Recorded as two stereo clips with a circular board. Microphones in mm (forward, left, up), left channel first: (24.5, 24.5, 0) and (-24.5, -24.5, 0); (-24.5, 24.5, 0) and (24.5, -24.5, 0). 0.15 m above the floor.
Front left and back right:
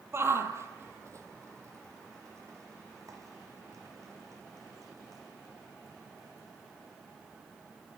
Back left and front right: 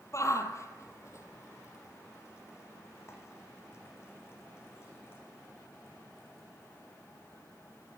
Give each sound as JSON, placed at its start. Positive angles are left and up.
{"t": 0.1, "sound": "a shout", "azimuth_deg": 175, "distance_m": 4.0}